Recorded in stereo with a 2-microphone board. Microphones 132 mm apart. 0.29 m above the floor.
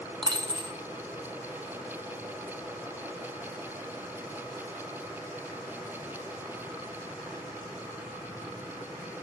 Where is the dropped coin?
30° right (ahead or behind), 0.5 m.